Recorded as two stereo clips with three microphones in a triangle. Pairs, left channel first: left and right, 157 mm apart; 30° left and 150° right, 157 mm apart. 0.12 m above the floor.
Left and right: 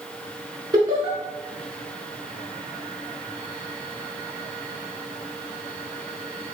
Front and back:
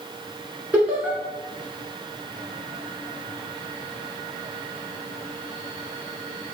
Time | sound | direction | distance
0.7 | laughter | 80° right | 1.2 m